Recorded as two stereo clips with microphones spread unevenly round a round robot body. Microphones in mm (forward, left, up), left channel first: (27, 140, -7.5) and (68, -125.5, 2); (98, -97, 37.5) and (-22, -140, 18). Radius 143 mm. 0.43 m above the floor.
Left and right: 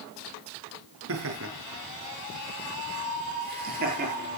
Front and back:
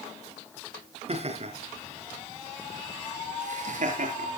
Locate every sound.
1.1 s laughter: 125° right, 6 m; by 4.3 s 145° right, 9 m